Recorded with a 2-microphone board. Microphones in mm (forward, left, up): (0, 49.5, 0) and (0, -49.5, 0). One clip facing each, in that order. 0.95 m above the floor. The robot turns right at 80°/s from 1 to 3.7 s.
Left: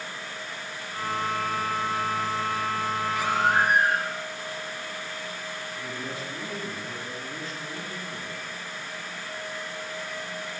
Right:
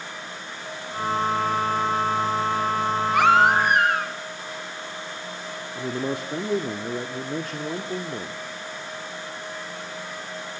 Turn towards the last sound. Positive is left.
turn(degrees=-65)  # may be behind; listen again after turning